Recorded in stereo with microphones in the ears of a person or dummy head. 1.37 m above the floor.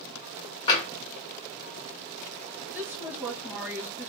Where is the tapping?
15° left (ahead or behind), 0.9 m.